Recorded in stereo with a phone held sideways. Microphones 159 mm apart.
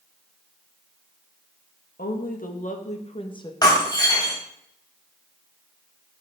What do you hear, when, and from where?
2.0 s a woman speaking: 65° left (ahead or behind), 1.6 m; by 3.5 s 25° left (ahead or behind), 1.2 m
3.6 s breaking glass: 25° left (ahead or behind), 2 m